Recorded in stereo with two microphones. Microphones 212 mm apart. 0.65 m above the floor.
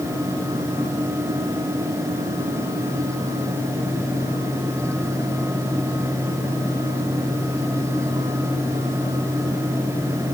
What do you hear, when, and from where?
Only background noise.